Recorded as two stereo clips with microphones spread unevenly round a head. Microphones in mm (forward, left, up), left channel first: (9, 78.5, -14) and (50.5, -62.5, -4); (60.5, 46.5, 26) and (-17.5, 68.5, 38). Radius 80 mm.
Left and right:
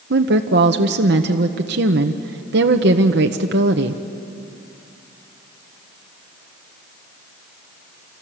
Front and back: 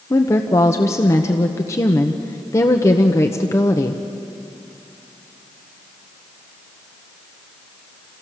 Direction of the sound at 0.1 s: 70° right.